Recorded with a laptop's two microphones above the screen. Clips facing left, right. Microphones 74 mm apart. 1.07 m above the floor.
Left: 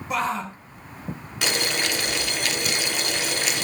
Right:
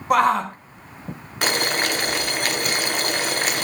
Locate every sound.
0.1 s a shout: 65° right (ahead or behind), 0.8 m
1.4 s boiling: 45° right (ahead or behind), 0.9 m